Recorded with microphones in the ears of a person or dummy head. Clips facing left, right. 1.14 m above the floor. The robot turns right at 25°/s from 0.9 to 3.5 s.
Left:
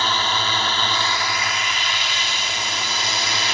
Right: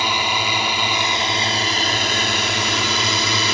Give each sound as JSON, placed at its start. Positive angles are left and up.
{"t": 0.0, "sound": "a drone", "azimuth_deg": -170}